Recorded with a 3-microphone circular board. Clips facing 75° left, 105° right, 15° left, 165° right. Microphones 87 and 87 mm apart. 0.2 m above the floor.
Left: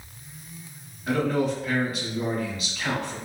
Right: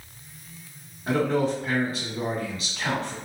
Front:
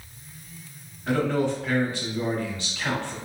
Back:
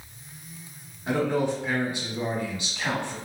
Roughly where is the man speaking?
Right.